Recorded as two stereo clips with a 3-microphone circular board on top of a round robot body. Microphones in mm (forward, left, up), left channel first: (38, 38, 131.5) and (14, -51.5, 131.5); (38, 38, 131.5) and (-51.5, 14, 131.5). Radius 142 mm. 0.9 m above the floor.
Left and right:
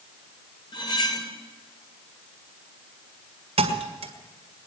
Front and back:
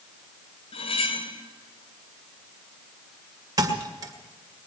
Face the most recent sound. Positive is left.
turn(degrees=-110)